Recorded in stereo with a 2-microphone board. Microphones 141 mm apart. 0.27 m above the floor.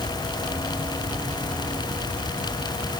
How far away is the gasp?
No gasp in this recording.